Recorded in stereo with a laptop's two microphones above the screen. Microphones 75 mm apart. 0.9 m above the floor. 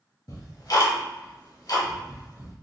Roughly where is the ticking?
Left.